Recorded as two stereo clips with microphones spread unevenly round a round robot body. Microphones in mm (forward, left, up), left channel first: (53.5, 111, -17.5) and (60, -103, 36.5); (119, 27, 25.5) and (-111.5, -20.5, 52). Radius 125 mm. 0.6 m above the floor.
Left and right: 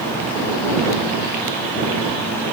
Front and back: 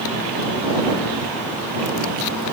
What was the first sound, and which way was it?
Only background noise.